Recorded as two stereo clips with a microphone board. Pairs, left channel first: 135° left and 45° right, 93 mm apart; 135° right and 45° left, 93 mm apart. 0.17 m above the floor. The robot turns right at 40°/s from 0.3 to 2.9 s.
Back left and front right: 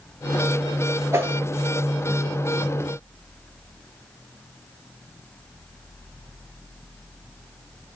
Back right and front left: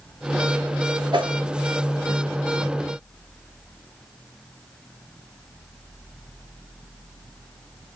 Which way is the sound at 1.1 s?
15° left.